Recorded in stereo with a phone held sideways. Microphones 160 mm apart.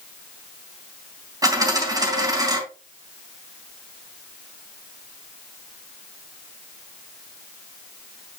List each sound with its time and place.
1.4 s a dropped coin: 25° right (ahead or behind), 3 m